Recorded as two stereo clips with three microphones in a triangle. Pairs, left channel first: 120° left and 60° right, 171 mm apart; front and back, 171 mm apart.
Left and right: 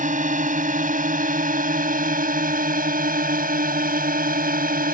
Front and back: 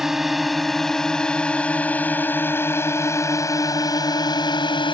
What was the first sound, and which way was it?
A drone, 90° right.